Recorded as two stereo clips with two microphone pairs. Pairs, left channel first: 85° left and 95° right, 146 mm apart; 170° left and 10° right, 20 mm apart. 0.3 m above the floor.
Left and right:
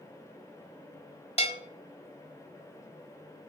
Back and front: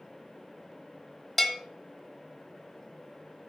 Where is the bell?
90° left, 1.4 m.